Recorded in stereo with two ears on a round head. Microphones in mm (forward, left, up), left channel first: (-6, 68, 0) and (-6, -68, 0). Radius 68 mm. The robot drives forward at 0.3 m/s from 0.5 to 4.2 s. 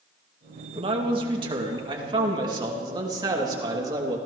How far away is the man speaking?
About 2 m.